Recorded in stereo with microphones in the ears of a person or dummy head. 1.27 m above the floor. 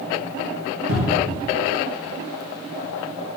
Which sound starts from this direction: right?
A cupboard door, at 0.9 s.